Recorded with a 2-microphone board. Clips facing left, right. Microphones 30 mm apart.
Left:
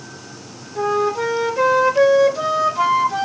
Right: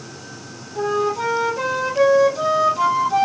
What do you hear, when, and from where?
0.8 s a flute: 30° left (ahead or behind), 2 m